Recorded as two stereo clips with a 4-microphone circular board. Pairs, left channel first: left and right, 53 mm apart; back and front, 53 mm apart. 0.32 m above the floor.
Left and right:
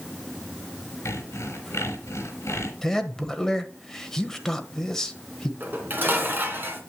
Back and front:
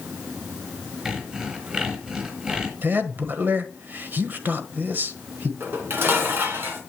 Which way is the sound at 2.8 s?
15° left.